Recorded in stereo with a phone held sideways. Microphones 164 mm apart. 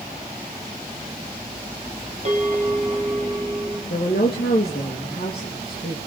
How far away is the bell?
About 3.5 m.